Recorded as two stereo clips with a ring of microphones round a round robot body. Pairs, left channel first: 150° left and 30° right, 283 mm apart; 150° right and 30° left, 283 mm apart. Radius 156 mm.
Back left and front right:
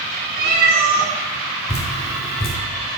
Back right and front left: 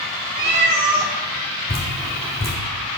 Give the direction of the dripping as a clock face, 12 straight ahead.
6 o'clock.